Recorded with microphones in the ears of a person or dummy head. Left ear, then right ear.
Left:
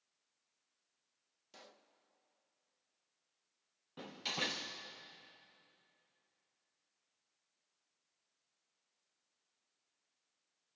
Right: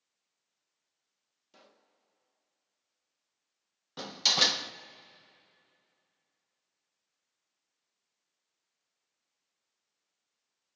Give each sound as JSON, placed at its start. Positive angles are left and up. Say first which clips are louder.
{"t": 1.5, "sound": "a pop", "louder": "left 2 dB", "side_deg": 20, "distance_m": 0.9}
{"t": 4.0, "sound": "a door slam", "louder": "right 14 dB", "side_deg": -50, "distance_m": 0.6}